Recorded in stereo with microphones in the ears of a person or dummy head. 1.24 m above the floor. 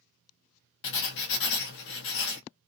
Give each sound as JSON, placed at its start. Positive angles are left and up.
{"t": 0.8, "sound": "writing", "side_deg": 60, "distance_m": 1.0}